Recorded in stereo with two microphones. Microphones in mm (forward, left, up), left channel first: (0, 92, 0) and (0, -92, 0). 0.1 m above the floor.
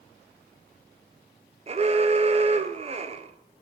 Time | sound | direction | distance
1.7 | an alarm | 35° right (ahead or behind) | 1.3 m